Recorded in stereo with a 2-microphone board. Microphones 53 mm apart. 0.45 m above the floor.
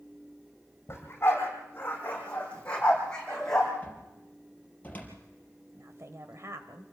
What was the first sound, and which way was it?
A dog barking, 45° left (ahead or behind).